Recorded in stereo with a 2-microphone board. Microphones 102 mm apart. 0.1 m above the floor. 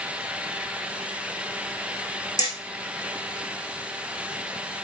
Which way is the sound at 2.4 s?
35° left (ahead or behind).